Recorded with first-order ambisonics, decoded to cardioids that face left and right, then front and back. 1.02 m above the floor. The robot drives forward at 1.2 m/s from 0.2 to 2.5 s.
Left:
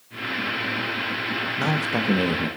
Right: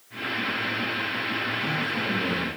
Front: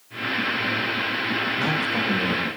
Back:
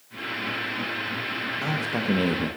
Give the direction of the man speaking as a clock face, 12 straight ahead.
10 o'clock.